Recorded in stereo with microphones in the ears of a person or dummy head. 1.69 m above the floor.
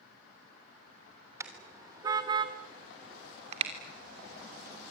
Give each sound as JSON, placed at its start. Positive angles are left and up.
{"t": 1.4, "sound": "a car horn", "side_deg": -15, "distance_m": 3.0}